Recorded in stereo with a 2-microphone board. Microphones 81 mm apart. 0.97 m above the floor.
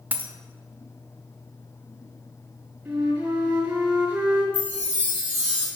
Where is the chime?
80° left, 1.9 m.